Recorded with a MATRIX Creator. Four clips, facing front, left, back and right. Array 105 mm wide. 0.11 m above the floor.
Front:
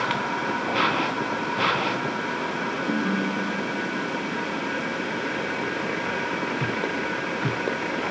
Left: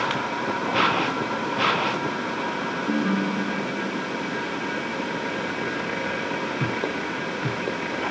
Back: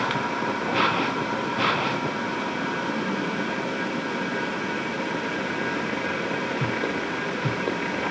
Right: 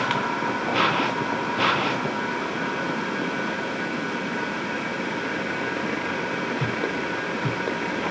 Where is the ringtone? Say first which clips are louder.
Left 3 dB, front 2 dB; 65° left.